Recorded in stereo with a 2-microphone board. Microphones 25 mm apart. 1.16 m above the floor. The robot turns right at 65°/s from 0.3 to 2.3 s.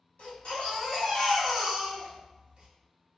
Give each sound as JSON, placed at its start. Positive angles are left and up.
{"t": 0.2, "sound": "a baby crying", "azimuth_deg": 100, "distance_m": 1.5}